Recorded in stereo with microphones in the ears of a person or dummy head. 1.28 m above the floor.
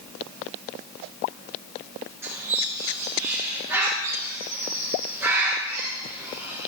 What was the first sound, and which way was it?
A bird, 10° right (ahead or behind).